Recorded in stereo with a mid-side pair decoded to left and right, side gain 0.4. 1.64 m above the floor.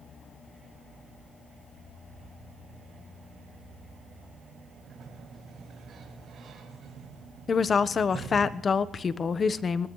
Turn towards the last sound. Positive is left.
turn(degrees=45)